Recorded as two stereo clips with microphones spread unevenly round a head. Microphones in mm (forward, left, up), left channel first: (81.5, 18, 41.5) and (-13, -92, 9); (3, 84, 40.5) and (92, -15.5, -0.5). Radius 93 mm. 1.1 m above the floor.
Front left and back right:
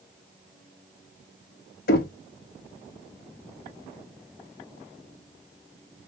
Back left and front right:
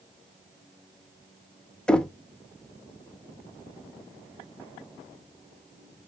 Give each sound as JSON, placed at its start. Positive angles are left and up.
{"t": 1.9, "sound": "knocking", "azimuth_deg": 55, "distance_m": 0.8}